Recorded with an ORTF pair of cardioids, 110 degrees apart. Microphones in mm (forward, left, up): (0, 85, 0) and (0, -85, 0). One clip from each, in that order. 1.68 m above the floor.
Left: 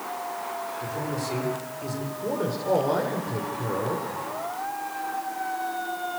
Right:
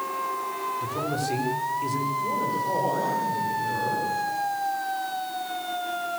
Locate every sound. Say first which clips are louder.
0.8 s a man speaking: right 2 dB; 15° right, 6.5 m
2.2 s a man speaking: right 2 dB; 45° left, 7 m